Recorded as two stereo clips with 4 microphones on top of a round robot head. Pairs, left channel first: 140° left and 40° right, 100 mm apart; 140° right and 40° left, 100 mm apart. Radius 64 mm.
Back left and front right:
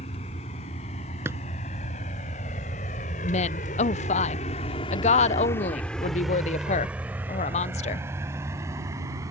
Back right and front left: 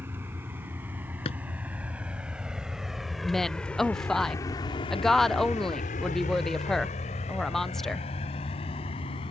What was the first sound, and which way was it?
A vehicle, 110° left.